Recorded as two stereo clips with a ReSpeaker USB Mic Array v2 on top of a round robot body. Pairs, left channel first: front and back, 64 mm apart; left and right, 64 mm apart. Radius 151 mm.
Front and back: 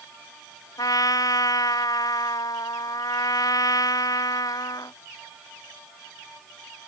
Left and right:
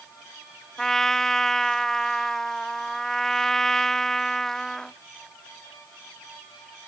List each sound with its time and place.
0.8 s a trumpet: 10° left